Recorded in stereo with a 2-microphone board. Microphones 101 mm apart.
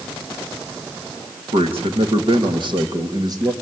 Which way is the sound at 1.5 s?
70° right (ahead or behind).